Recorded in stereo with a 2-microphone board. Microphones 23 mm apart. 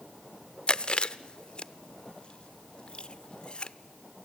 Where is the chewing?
40° left (ahead or behind), 0.5 m.